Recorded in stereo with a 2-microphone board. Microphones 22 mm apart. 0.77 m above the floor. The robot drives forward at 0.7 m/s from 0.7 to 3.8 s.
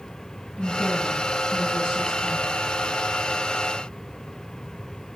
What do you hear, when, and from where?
0.6 s a woman speaking: 45° left (ahead or behind), 7 m; by 2.5 s 40° left (ahead or behind), 8 m